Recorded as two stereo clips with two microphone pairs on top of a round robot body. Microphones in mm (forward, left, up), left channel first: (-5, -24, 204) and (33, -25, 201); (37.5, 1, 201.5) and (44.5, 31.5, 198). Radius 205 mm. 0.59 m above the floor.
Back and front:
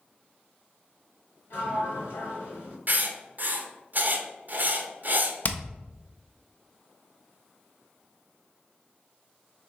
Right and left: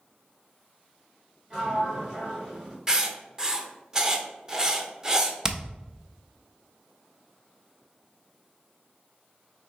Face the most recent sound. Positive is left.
turn(degrees=135)